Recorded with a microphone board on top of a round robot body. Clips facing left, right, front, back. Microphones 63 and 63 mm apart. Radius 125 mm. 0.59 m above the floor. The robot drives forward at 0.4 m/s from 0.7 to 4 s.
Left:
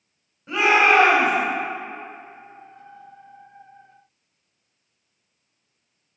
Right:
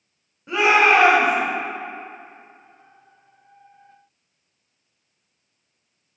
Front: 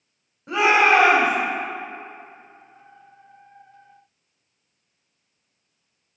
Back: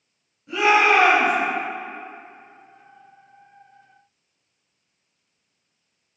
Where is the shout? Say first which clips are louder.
Right 1 dB, even; 10° right, 2.5 m; by 1.3 s 15° right, 2 m.